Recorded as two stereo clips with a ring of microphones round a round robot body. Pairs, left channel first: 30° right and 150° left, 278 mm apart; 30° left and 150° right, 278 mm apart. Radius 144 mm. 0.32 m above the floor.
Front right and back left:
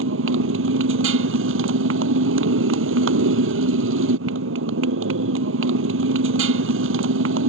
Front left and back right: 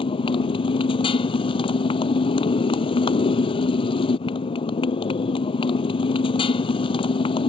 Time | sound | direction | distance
0.0 | a motorcycle | 105° left | ?